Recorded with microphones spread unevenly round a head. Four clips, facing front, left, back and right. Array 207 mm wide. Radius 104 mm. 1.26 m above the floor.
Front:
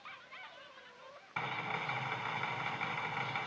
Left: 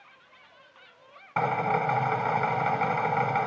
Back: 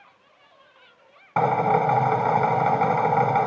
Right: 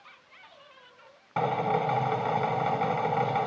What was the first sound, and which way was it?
A drill, 170° right.